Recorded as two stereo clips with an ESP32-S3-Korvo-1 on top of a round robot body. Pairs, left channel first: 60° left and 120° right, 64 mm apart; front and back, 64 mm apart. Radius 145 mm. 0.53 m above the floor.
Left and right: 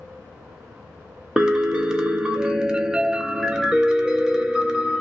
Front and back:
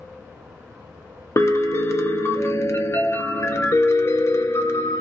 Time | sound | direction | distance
1.4 | a piano | 40° right | 0.7 m